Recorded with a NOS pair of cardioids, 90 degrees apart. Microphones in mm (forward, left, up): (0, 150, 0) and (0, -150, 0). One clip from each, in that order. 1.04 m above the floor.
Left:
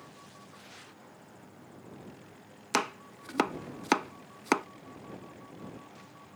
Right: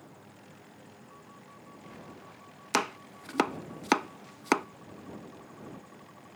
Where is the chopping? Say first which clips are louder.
Right 1 dB; straight ahead.